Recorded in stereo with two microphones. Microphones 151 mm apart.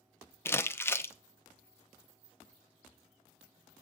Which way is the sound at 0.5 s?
15° left (ahead or behind).